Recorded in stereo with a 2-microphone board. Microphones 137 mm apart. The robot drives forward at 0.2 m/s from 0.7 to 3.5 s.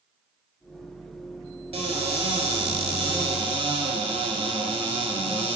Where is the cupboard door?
45° right (ahead or behind), 1.4 m.